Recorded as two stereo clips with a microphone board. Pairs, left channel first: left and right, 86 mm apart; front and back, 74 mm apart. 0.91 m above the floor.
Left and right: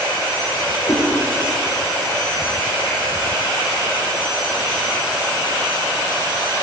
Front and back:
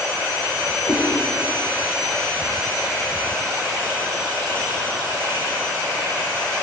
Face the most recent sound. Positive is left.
turn(degrees=35)